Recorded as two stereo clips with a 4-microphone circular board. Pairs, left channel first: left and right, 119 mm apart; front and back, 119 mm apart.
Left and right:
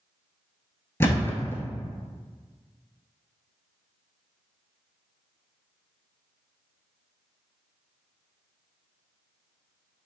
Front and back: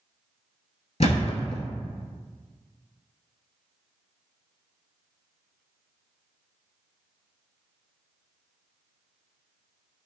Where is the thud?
20° left, 0.6 m.